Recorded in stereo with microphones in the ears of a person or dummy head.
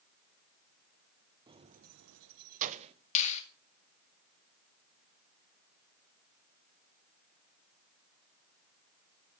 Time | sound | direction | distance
1.5 | keys jangling | 25° right (ahead or behind) | 1.0 m
3.1 | a finger snap | 40° left (ahead or behind) | 2.5 m